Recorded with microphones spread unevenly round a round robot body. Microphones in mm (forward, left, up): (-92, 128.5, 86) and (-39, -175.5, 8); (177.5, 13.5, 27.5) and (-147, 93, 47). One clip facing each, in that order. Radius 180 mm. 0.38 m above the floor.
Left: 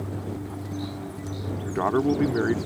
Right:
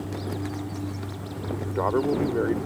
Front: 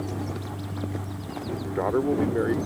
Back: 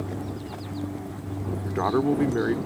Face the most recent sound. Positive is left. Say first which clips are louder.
# left 1 dB, back 1 dB
turn(degrees=135)